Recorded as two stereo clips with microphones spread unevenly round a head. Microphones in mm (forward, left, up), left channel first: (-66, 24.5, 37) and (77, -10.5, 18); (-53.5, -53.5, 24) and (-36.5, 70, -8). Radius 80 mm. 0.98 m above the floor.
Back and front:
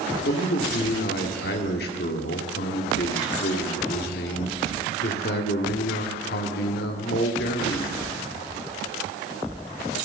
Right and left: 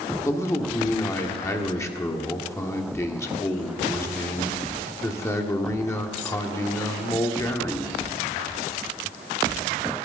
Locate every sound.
0.2 s a man speaking: 165° right, 2.0 m